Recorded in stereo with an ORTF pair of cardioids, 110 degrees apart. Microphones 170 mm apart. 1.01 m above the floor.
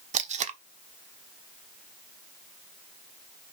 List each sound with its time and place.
0.1 s tape being pulled: 45° right, 1.2 m